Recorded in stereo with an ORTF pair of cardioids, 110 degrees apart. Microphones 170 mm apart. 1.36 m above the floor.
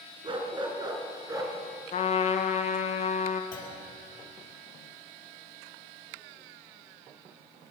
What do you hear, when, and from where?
0.2 s a dog barking: 30° right, 4.5 m; by 1.6 s 20° right, 5 m
1.9 s a trumpet: 40° left, 1.6 m
3.5 s a clunk: 55° left, 7.5 m